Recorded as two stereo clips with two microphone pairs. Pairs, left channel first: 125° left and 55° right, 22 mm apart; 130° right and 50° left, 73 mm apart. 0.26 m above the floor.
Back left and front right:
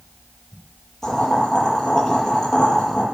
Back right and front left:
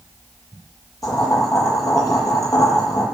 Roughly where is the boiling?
Behind.